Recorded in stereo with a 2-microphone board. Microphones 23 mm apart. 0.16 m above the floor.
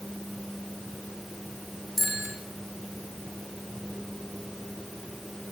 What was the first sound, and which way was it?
A bicycle bell, centre (ahead or behind).